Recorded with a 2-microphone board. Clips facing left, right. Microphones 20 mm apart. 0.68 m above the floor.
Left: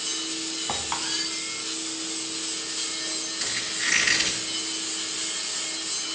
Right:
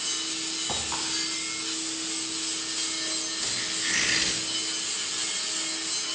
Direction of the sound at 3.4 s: 70° left (ahead or behind).